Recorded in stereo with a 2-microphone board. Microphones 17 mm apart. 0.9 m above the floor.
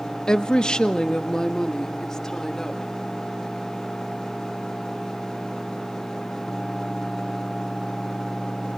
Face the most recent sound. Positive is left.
turn(degrees=25)  # may be behind; listen again after turning